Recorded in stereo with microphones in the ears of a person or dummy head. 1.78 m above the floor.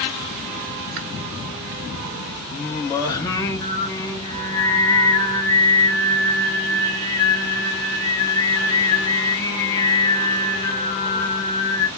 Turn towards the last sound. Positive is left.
turn(degrees=20)  # may be behind; listen again after turning